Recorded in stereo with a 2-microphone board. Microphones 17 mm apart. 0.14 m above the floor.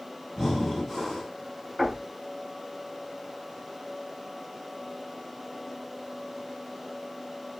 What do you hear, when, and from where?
0.4 s breathing: 15° left (ahead or behind), 1.2 m
1.8 s knocking: 20° right (ahead or behind), 1.3 m